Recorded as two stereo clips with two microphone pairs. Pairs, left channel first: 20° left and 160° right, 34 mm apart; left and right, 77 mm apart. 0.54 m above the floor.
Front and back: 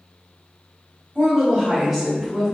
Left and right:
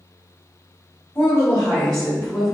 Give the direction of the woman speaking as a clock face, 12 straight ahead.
7 o'clock.